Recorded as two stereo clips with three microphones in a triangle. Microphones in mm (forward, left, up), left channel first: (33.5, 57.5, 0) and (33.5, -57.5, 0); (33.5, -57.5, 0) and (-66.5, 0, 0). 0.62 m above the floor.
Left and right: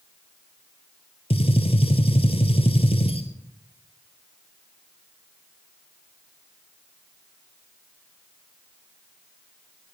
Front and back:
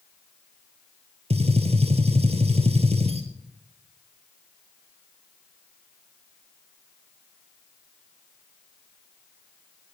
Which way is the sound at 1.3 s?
125° left.